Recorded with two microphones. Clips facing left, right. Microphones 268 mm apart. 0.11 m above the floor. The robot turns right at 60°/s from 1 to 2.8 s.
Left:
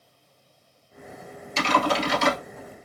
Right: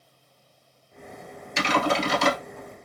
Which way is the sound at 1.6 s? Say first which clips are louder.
Even; 155° right.